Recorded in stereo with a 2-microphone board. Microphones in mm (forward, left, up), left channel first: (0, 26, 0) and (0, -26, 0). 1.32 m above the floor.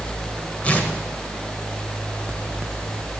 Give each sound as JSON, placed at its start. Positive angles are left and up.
{"t": 0.6, "sound": "tearing paper", "side_deg": 25, "distance_m": 1.3}